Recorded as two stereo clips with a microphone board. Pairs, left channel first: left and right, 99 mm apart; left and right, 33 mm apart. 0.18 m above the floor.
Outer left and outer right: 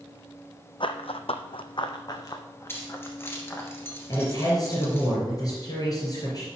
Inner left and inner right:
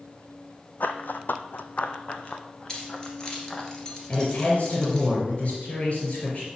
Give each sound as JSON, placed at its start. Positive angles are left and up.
{"t": 0.8, "sound": "running footsteps", "side_deg": 60, "distance_m": 0.7}
{"t": 2.7, "sound": "keys jangling", "side_deg": 25, "distance_m": 2.0}
{"t": 4.1, "sound": "a man speaking", "side_deg": 40, "distance_m": 3.0}